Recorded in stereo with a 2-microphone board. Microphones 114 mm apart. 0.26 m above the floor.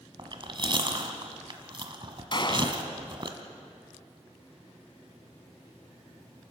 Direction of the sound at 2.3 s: 40° left (ahead or behind).